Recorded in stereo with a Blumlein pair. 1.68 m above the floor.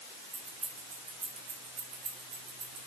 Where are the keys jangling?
15° right, 2.5 m; by 2.9 s 40° right, 3.5 m.